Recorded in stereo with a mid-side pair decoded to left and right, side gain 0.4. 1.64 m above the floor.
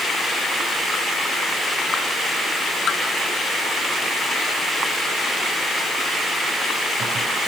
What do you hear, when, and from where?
Only background noise.